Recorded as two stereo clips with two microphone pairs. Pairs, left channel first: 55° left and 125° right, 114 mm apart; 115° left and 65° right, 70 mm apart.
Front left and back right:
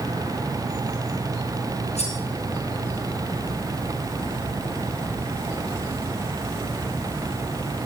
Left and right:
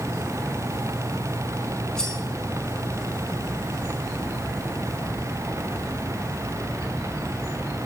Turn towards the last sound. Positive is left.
turn(degrees=40)